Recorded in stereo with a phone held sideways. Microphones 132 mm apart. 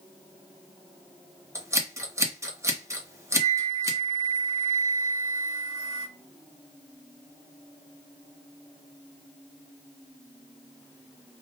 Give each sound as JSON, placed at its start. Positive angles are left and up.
{"t": 1.6, "sound": "scissors", "side_deg": -20, "distance_m": 1.3}
{"t": 3.3, "sound": "a flute", "side_deg": 30, "distance_m": 2.5}